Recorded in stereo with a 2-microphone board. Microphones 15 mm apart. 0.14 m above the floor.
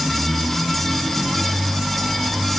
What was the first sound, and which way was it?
Only background noise.